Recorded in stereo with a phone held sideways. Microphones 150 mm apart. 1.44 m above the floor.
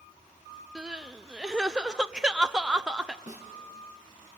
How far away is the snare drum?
About 4 m.